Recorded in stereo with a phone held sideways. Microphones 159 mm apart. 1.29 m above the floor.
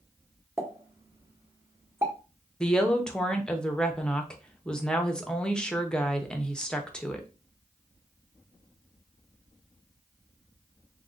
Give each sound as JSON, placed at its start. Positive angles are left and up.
{"t": 0.6, "sound": "a pop", "side_deg": -15, "distance_m": 0.9}
{"t": 2.6, "sound": "a woman speaking", "side_deg": 5, "distance_m": 0.6}